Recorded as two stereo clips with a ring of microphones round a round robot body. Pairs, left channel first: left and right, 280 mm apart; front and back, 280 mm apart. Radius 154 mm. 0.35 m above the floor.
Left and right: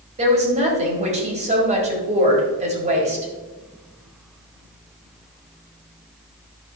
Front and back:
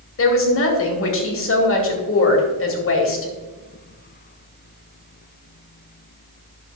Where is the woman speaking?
25° right, 2.0 m.